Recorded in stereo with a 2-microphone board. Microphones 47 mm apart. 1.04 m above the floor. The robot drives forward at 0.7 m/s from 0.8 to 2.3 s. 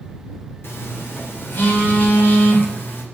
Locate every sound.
0.6 s a phone buzzing: 55° left (ahead or behind), 3 m; by 3.0 s 45° left (ahead or behind), 4 m